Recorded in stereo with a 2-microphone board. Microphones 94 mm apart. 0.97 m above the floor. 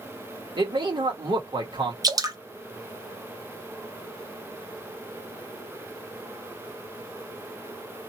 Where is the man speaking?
55° right (ahead or behind), 1.3 m.